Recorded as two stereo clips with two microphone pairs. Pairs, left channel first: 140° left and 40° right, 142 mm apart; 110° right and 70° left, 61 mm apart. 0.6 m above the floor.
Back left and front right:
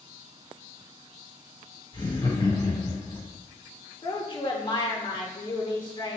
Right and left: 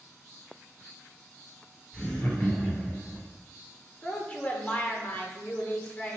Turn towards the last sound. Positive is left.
turn(degrees=-175)